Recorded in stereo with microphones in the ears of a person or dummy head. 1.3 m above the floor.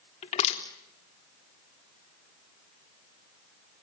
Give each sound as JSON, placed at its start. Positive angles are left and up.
{"t": 0.2, "sound": "crushing", "side_deg": 35, "distance_m": 3.5}